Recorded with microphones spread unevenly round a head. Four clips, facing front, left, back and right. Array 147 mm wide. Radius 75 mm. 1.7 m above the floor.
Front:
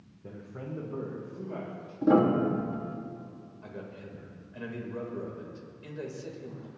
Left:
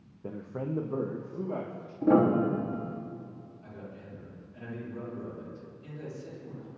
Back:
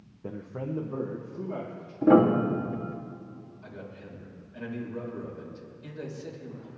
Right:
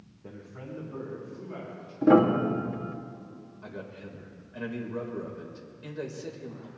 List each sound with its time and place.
0.2 s a man speaking: 150° left, 0.7 m; by 1.9 s 105° left, 2.5 m
2.0 s a piano: 115° right, 1.1 m
3.6 s a man speaking: 70° right, 3 m